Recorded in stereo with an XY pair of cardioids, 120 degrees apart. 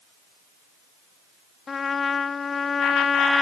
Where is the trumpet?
30° left.